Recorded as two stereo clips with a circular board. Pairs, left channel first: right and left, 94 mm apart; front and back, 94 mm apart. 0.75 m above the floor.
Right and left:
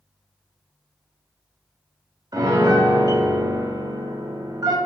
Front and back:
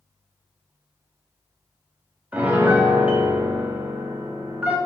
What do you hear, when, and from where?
2.3 s a piano: 110° left, 0.6 m